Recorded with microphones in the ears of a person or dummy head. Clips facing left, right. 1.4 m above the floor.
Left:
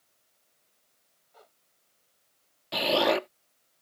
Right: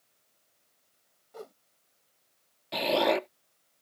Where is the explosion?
5° left (ahead or behind).